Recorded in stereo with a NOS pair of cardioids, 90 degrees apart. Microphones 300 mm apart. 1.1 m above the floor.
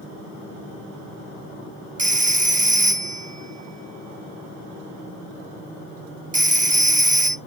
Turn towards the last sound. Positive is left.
turn(degrees=-25)